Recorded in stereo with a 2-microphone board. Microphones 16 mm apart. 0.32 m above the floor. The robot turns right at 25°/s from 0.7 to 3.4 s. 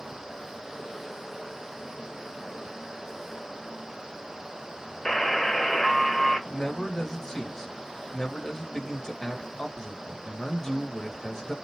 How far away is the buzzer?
About 0.8 m.